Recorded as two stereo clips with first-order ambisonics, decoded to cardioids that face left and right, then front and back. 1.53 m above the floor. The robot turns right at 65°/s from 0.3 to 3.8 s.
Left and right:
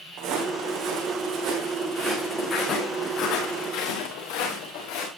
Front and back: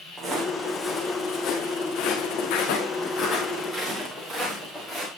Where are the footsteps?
120° right, 5 m; by 5.1 s 90° left, 8 m.